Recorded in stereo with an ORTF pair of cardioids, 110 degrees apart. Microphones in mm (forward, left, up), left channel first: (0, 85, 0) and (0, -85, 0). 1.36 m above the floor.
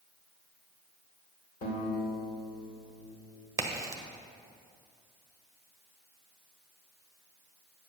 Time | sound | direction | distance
1.6 | a guitar | 60° left | 2.5 m
3.6 | a crack | 15° right | 1.1 m